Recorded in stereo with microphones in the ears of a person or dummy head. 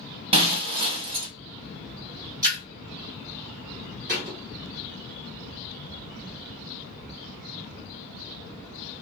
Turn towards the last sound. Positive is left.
turn(degrees=-50)  # may be behind; listen again after turning